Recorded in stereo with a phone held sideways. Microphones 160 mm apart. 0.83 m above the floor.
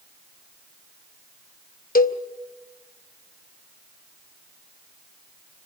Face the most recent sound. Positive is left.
turn(degrees=65)  # may be behind; listen again after turning